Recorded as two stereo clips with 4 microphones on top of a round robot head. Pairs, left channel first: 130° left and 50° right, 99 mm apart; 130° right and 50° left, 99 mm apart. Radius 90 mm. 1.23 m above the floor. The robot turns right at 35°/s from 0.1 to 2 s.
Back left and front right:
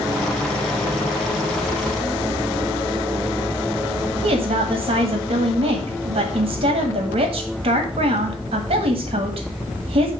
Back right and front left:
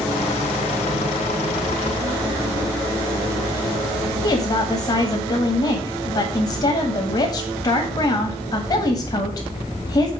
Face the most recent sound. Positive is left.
turn(degrees=-75)